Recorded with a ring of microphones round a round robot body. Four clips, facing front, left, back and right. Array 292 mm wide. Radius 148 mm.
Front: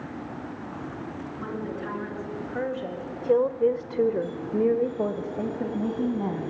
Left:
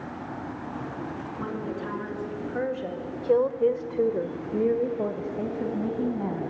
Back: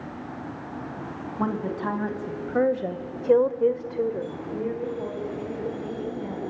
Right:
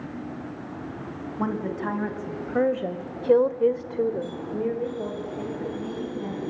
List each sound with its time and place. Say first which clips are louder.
1.4 s a woman speaking: right 6 dB, back 7 dB; 145° right, 3 m; by 6.5 s 30° left, 3.5 m